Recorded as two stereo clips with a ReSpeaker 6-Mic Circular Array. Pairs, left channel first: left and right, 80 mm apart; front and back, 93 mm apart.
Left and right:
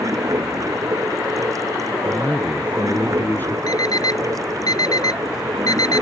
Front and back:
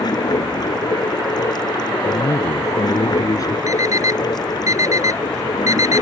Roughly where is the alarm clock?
Behind left.